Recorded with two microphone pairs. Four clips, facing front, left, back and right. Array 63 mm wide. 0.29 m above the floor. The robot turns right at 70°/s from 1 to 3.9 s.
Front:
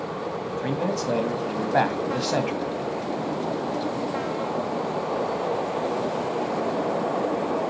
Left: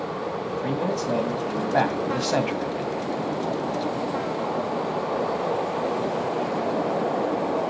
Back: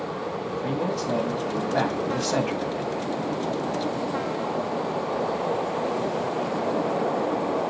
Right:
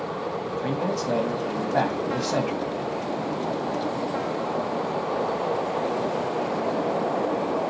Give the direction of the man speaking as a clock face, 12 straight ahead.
1 o'clock.